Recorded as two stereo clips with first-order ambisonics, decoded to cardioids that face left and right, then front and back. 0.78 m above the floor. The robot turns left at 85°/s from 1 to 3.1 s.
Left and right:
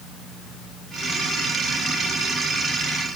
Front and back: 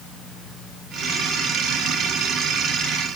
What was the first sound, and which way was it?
Only background noise.